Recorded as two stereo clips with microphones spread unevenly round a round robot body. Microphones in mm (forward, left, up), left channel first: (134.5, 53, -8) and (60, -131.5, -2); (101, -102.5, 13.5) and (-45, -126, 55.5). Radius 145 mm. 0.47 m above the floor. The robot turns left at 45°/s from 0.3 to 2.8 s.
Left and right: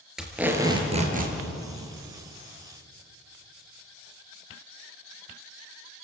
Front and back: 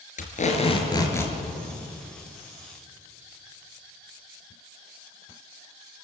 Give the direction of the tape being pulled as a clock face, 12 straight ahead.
1 o'clock.